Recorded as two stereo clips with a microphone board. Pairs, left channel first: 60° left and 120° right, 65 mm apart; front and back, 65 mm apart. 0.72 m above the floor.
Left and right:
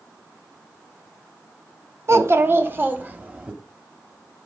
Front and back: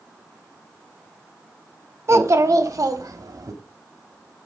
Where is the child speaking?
150° right, 1.0 m; by 3.5 s 175° left, 1.6 m.